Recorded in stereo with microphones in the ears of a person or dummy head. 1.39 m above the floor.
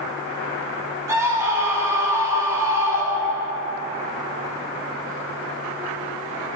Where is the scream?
15° right (ahead or behind), 3.5 m.